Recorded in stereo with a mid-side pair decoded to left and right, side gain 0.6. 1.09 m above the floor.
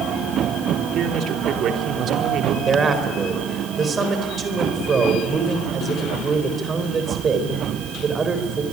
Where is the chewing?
I don't hear chewing.